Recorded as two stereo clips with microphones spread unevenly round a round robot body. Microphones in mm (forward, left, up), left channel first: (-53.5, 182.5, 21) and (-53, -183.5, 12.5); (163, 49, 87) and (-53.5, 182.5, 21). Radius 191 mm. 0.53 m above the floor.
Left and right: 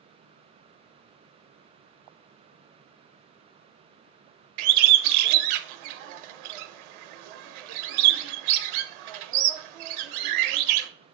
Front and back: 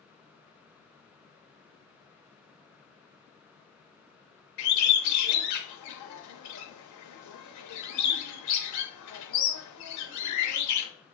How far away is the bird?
About 0.6 m.